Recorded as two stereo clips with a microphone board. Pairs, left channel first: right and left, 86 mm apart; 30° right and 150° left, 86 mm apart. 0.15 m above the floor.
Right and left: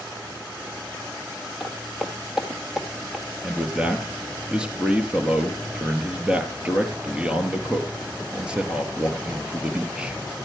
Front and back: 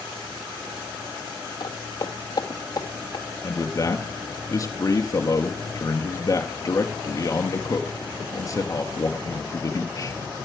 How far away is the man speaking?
About 2.5 m.